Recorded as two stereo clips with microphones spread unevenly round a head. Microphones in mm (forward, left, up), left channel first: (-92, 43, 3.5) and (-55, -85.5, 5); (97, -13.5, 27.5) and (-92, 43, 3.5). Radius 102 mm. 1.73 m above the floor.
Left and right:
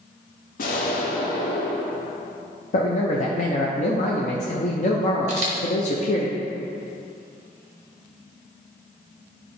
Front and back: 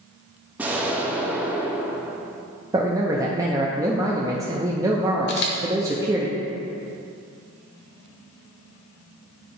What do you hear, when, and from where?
0.6 s an explosion: 75° left, 0.8 m
2.7 s a man speaking: 85° left, 0.6 m
5.3 s a camera shutter: 35° right, 1.0 m